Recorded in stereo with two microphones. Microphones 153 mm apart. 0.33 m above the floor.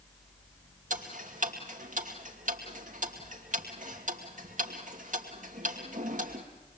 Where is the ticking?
55° right (ahead or behind), 2.5 m.